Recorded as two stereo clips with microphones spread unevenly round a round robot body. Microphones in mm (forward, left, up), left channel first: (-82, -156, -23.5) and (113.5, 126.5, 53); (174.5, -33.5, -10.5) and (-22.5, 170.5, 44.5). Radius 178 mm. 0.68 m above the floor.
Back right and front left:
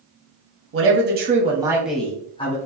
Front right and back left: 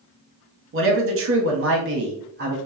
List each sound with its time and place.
0.7 s a man speaking: 100° left, 1.3 m; by 2.6 s 165° right, 1.3 m